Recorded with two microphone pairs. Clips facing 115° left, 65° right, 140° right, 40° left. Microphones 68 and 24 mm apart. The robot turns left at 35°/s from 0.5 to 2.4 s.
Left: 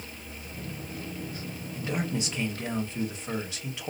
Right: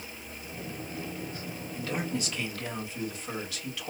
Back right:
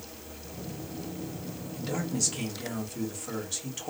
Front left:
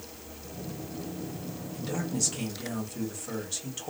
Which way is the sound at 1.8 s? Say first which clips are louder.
Left 2 dB, even; 155° left.